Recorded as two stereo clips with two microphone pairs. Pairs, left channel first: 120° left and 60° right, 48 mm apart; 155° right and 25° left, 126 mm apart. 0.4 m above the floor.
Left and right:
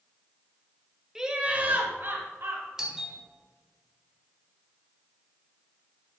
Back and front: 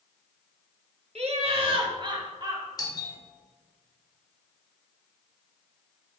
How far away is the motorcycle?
I don't hear a motorcycle.